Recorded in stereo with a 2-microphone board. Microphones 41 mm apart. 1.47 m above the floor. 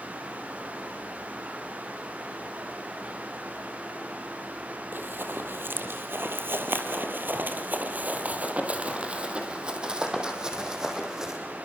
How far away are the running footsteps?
About 3.5 m.